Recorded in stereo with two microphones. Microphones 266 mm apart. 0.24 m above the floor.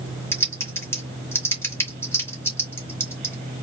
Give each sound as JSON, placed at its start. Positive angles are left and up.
{"t": 0.3, "sound": "typing on a keyboard", "side_deg": 10, "distance_m": 1.8}